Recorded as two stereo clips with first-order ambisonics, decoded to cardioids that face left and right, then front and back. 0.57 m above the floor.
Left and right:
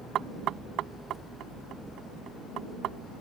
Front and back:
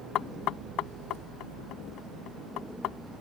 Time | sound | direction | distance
0.1 | knocking | 40° right | ?